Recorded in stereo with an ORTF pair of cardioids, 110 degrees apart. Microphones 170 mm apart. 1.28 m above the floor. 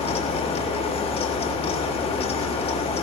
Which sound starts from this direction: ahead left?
A fan, at 0.0 s.